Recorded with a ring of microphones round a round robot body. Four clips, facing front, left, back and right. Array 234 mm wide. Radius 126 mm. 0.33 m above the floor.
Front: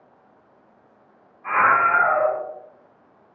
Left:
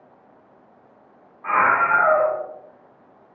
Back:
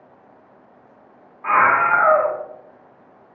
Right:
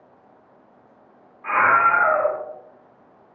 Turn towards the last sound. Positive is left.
turn(degrees=170)